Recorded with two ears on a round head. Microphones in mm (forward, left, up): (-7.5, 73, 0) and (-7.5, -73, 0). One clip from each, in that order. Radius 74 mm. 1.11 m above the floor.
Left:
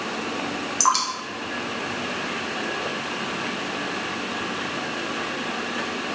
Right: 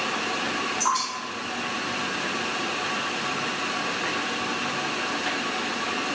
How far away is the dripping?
About 1.0 m.